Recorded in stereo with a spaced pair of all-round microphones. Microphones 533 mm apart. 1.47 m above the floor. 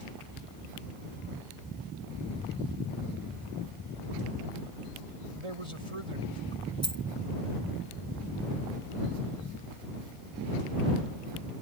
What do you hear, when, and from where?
5.3 s a man speaking: 75° right (ahead or behind)
6.8 s a dropped coin: 30° left (ahead or behind)